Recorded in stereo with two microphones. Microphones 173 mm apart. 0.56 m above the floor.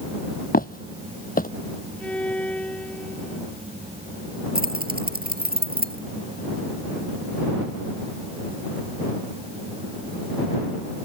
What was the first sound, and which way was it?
Footsteps, 55° left (ahead or behind).